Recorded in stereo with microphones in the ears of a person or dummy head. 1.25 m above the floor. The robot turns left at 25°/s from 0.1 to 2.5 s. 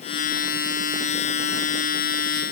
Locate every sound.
Only background noise.